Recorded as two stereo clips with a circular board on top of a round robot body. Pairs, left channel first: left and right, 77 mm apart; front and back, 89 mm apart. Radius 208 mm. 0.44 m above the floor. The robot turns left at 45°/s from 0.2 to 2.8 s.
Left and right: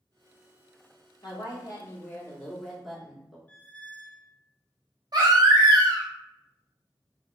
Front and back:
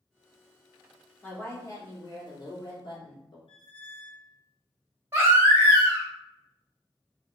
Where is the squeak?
20° left, 0.5 m.